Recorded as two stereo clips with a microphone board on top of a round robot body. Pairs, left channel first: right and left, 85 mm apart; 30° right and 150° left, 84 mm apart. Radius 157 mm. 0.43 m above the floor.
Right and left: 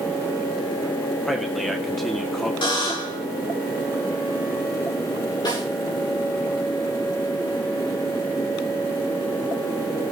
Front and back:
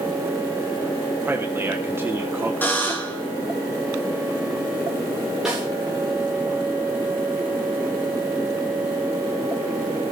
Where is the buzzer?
95° right, 4 m.